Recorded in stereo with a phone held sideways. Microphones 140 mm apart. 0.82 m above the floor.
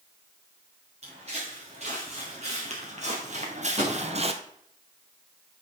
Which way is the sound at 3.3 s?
50° right (ahead or behind).